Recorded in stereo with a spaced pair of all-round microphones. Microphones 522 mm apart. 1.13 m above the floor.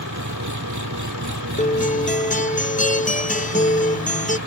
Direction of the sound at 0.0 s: 35° right (ahead or behind).